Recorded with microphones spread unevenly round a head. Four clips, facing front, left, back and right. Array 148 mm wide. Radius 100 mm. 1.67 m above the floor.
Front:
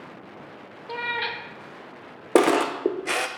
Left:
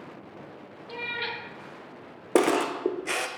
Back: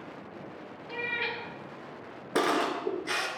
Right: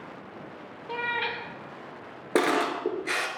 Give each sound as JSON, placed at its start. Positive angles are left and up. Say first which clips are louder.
{"t": 0.9, "sound": "a cat meowing", "louder": "right 4 dB, front 5 dB", "azimuth_deg": -20, "distance_m": 1.1}
{"t": 2.4, "sound": "a camera shutter", "louder": "left 2 dB, front 8 dB", "azimuth_deg": 35, "distance_m": 0.7}